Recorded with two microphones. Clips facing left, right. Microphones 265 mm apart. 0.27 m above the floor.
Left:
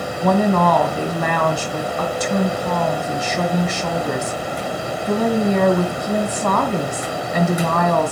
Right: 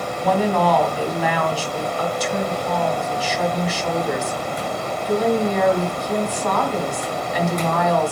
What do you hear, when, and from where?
0.2 s a woman speaking: 55° left (ahead or behind), 1.8 m